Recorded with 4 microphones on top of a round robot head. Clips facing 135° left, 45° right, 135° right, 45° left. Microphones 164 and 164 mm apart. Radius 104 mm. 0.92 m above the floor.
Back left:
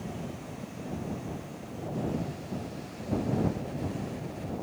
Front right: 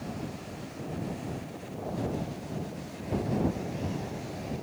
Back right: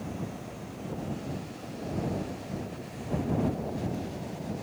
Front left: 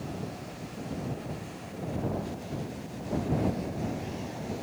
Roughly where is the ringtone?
I don't hear a ringtone.